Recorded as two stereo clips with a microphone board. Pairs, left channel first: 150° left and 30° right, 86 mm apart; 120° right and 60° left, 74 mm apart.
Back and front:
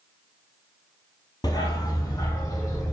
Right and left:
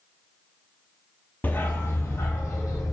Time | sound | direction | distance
1.4 | a dog barking | 175° left | 0.9 m